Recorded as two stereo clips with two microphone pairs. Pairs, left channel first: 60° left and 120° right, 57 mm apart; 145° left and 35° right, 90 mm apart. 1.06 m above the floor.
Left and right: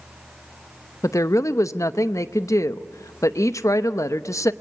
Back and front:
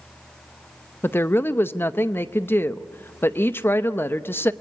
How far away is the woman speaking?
About 0.8 m.